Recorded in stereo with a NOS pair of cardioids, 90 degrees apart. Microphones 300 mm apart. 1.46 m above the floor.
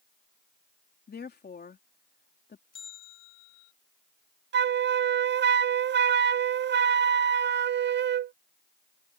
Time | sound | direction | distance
1.1 | a woman speaking | 35° left | ?
2.7 | a bell | 55° left | ?
4.5 | a flute | 40° right | ?